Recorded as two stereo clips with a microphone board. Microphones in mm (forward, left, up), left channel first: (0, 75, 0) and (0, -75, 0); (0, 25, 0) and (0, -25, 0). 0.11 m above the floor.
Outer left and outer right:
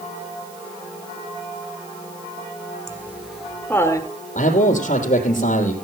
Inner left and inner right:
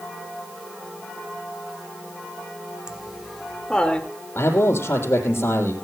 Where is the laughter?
15° right (ahead or behind), 2.0 m; by 4.1 s 25° left (ahead or behind), 1.7 m.